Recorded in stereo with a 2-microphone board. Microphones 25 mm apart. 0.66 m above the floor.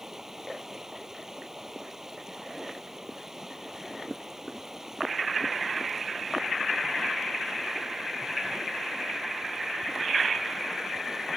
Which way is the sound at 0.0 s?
20° right (ahead or behind).